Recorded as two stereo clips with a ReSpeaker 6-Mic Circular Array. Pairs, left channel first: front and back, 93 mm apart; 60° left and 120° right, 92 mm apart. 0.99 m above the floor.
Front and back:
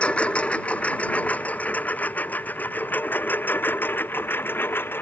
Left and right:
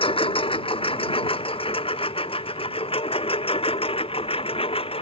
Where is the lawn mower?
80° left; by 5.0 s 70° left.